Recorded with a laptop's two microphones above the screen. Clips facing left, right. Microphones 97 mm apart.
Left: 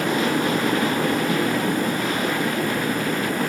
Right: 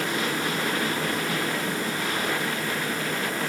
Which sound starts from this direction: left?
A fan, at 0.0 s.